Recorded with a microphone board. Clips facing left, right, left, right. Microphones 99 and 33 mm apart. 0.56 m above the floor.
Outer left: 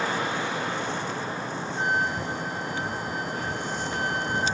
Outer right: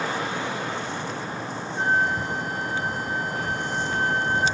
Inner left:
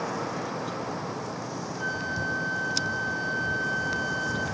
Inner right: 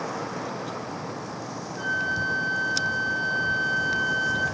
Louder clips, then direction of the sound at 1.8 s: Outer right 4 dB, inner right 5 dB; 35° right (ahead or behind).